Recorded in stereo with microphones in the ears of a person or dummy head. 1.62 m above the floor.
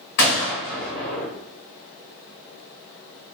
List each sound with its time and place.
0.2 s a gunshot: 45° left (ahead or behind), 1.1 m